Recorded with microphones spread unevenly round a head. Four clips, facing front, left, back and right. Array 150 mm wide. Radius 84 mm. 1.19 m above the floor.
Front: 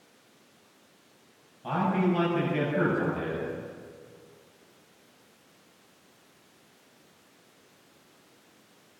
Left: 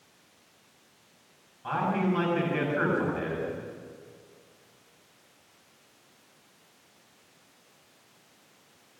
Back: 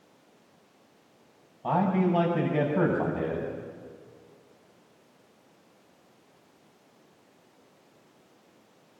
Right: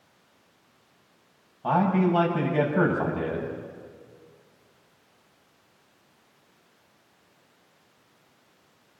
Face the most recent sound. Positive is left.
turn(degrees=-140)